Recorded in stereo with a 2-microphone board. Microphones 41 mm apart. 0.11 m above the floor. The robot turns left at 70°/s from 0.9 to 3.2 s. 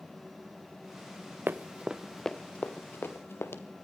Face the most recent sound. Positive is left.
turn(degrees=80)